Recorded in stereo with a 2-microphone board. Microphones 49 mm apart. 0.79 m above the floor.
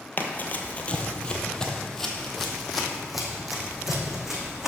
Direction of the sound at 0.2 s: 40° left (ahead or behind).